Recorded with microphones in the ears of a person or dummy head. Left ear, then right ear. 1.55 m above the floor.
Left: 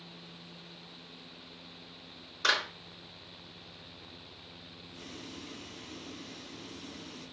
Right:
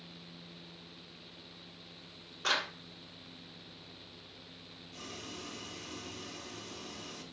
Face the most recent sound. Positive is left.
turn(degrees=-80)